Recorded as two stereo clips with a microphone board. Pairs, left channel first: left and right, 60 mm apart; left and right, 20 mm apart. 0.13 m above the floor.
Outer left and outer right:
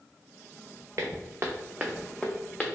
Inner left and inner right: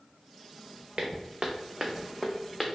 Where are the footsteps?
60° right (ahead or behind), 0.7 m; by 2.7 s 20° left (ahead or behind), 0.7 m.